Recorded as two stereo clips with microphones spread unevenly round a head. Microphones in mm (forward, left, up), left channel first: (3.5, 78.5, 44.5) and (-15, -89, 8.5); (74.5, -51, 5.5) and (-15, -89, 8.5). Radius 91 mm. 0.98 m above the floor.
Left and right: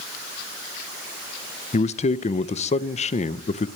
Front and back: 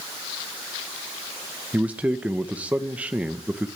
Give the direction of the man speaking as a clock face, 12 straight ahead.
8 o'clock.